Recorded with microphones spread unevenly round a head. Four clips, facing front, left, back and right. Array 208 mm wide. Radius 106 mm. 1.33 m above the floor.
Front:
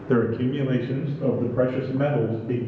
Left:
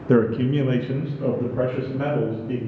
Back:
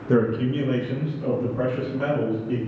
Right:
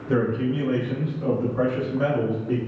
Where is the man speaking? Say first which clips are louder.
Left 4 dB, back 1 dB; 115° left, 0.6 m; by 2.6 s 10° left, 1.4 m.